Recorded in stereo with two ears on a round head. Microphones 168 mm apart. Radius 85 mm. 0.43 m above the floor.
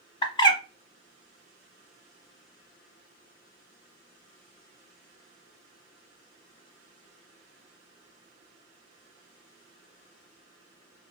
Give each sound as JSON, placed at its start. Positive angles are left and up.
{"t": 0.2, "sound": "a bird", "side_deg": 25, "distance_m": 0.8}